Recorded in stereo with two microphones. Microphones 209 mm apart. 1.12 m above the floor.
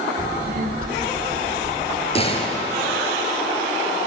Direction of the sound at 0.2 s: 50° right (ahead or behind).